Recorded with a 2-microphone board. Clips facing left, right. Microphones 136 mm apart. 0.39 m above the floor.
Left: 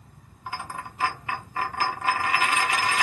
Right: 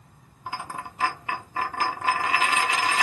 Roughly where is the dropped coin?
Right.